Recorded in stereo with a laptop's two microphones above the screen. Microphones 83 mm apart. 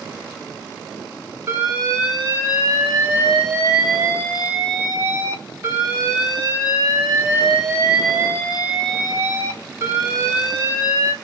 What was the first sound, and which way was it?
An alarm, 35° right (ahead or behind).